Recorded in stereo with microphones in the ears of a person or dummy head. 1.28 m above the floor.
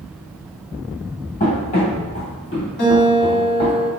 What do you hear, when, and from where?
1.4 s running footsteps: 35° left (ahead or behind), 1.6 m; by 3.8 s 25° left (ahead or behind), 2 m
2.8 s a guitar: 50° left (ahead or behind), 1.6 m